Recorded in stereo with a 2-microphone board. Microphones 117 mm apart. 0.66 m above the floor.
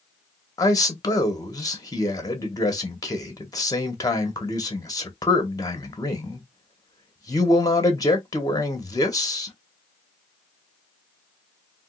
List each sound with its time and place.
0.6 s a man speaking: 30° left (ahead or behind), 1.0 m